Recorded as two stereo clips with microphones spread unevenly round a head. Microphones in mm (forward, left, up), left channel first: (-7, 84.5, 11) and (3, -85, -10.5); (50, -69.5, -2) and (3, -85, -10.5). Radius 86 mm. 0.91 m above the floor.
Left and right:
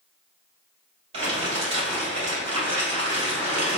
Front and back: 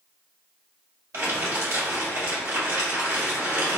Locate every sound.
1.1 s crumpling: 145° right, 1.9 m